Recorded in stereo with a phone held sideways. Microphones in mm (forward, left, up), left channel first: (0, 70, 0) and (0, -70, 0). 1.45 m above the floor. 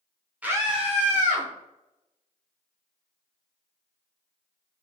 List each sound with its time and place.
0.4 s a scream: 10° right (ahead or behind), 0.9 m; by 1.5 s 80° right, 1.5 m